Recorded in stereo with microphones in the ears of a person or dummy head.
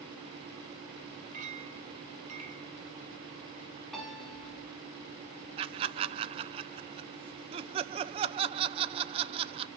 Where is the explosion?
I don't hear an explosion.